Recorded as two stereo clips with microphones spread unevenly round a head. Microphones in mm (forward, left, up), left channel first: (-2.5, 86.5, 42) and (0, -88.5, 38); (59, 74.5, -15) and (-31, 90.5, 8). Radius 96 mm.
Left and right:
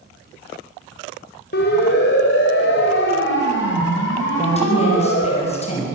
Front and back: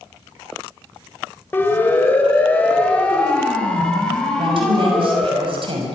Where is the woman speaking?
145° left, 6 m.